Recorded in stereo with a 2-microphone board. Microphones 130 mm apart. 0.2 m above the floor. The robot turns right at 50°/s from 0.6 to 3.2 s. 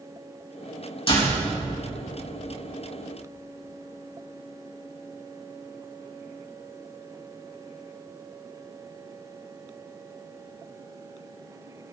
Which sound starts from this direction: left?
A door slam, at 1.1 s.